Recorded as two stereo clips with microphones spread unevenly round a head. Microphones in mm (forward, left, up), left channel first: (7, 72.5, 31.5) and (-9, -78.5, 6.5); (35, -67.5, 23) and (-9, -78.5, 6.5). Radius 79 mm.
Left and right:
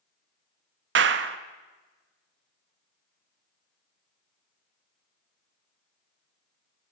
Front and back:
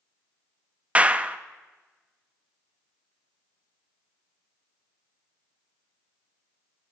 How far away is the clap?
About 0.7 m.